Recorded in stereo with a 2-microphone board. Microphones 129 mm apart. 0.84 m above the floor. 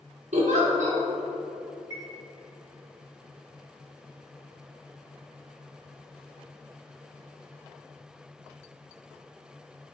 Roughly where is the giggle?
Right.